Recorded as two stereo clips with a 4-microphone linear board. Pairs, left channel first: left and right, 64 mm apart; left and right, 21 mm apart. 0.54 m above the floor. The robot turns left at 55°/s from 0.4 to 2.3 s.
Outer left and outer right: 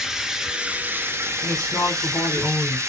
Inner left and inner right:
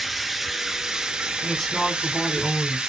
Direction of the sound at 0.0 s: 10° right.